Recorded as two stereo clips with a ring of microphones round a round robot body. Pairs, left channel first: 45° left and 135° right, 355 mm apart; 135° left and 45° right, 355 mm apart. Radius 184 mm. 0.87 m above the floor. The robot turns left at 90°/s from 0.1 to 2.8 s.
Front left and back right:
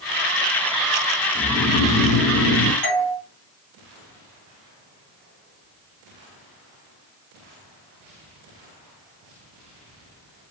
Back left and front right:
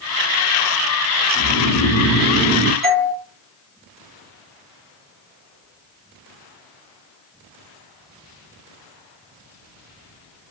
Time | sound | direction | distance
1.4 | snoring | 140° left | 4 m
2.8 | a doorbell | 20° left | 5.5 m